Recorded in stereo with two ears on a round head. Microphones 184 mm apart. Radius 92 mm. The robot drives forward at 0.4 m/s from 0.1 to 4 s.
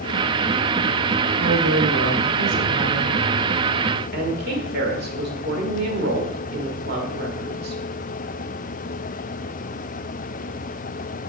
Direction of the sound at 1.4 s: 70° right (ahead or behind).